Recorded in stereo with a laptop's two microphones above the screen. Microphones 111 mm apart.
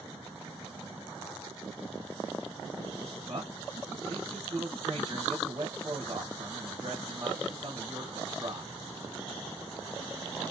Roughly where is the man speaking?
Right.